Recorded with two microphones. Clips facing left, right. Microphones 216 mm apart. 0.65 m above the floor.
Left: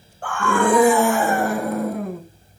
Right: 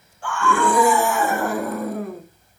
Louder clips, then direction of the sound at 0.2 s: Left 1 dB; 60° left (ahead or behind).